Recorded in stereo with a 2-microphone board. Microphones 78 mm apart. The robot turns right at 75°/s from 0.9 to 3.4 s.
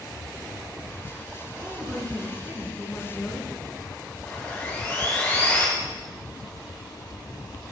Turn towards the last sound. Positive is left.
turn(degrees=30)  # may be behind; listen again after turning